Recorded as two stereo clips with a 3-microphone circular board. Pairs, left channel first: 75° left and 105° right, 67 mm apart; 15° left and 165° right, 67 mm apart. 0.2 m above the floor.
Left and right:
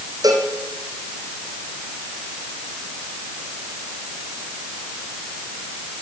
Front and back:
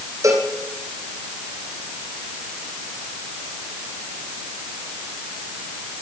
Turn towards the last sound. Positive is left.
turn(degrees=-130)